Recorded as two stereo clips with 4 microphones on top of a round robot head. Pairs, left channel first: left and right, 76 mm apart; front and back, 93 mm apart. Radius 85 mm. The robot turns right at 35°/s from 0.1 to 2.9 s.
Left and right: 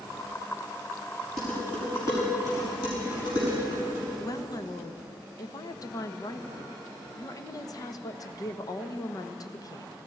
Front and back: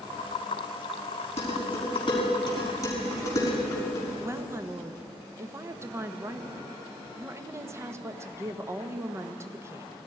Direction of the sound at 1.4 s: 5° left.